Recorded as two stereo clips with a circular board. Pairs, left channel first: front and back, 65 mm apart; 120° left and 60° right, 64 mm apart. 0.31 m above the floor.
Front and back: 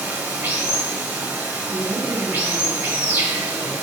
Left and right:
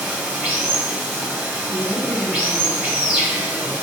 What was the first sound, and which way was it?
Running water, 120° right.